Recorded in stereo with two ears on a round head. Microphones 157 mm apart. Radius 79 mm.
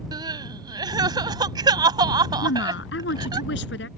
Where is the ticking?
No ticking in this recording.